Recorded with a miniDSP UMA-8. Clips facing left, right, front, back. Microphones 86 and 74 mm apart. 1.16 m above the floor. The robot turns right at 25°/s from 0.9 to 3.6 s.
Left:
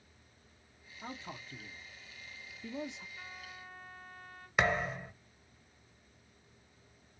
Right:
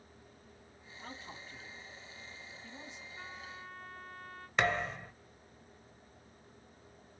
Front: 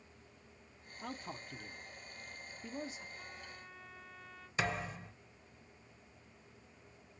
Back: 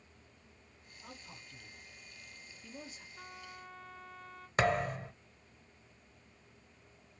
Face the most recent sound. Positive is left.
turn(degrees=170)